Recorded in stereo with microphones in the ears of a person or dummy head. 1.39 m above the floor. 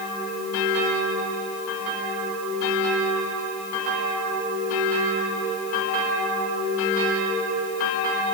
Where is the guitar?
No guitar in this recording.